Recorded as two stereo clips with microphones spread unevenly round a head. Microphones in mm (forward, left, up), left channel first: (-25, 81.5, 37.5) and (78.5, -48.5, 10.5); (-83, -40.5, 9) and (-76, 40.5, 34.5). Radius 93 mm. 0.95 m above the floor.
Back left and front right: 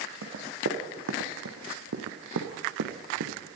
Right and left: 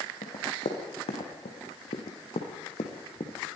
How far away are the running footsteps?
About 4.5 m.